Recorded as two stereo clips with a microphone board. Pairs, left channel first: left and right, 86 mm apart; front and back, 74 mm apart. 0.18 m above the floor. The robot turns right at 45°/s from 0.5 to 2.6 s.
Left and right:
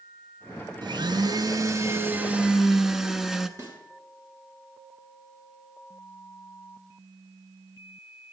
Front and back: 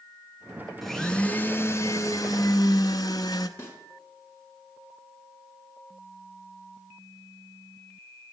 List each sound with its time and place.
0.8 s a blender: 85° right, 0.6 m; by 3.5 s 5° right, 0.6 m
3.6 s a snare drum: 50° right, 2 m